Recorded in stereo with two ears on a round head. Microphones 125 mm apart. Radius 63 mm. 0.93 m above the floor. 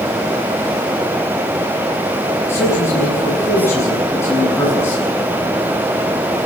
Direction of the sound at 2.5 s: 20° left (ahead or behind).